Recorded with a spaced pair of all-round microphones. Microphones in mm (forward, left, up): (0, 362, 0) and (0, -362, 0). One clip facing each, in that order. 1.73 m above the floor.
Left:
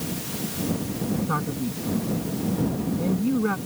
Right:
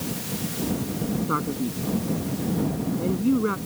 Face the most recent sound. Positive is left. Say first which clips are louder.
# right 1 dB
turn(degrees=25)  # may be behind; listen again after turning